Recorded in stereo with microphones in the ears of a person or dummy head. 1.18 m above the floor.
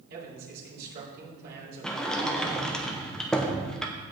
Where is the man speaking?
55° right (ahead or behind), 4 m.